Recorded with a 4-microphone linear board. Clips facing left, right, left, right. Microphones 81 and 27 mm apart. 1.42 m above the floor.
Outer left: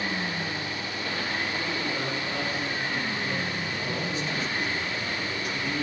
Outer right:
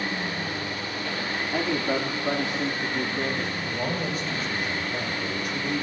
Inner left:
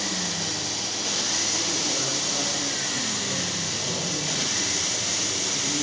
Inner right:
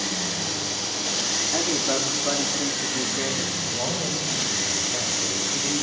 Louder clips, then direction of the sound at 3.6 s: Outer right 3 dB, inner right 2 dB; 45° right (ahead or behind).